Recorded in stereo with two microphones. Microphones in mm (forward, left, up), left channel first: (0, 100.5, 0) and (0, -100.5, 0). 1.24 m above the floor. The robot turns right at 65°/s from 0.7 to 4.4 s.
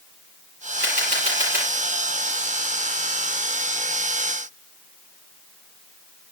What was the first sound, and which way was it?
A camera shutter, 60° right.